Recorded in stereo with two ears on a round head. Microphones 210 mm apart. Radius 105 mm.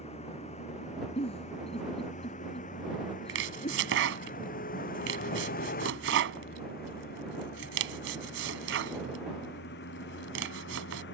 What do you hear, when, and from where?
0.0 s a vehicle: 30° left (ahead or behind); by 11.2 s 50° left (ahead or behind)
1.2 s a giggle: 25° left (ahead or behind)
3.3 s chopping: 55° right (ahead or behind)